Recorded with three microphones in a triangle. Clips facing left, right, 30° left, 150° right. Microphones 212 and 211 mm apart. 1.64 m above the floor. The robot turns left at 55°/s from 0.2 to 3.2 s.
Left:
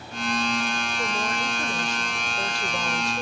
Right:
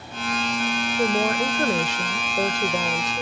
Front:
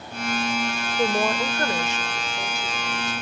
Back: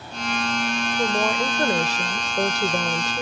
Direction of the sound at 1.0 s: 45° right.